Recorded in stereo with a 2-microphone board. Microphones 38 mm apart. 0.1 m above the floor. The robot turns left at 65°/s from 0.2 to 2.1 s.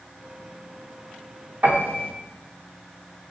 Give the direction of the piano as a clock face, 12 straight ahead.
2 o'clock.